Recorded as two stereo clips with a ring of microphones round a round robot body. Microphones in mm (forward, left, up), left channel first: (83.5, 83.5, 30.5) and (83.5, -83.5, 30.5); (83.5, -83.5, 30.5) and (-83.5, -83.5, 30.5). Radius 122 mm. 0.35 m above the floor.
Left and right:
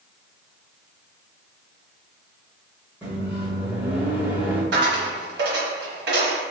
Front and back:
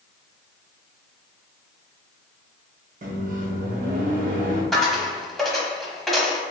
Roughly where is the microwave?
Behind.